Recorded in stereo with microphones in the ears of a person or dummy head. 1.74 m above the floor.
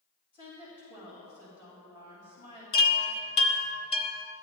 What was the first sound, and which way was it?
A woman speaking, 40° left (ahead or behind).